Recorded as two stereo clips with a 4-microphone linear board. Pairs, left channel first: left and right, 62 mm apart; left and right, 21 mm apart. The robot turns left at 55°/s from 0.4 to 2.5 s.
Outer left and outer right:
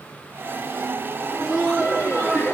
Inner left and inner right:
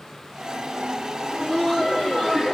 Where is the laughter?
115° left, 2 m; by 2.5 s 40° left, 2 m.